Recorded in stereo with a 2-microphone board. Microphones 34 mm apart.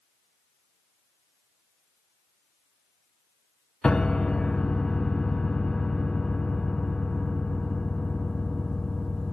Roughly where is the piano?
Left.